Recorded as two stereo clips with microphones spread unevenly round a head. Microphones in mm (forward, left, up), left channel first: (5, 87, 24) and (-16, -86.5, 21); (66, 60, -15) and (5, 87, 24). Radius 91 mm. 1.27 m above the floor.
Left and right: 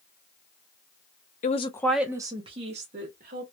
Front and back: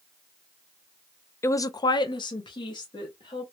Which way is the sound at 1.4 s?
35° left.